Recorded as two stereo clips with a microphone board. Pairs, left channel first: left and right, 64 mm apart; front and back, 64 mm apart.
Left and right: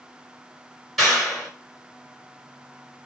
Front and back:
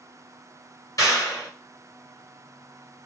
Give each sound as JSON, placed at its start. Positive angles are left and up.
{"t": 1.0, "sound": "a clap", "azimuth_deg": 5, "distance_m": 1.8}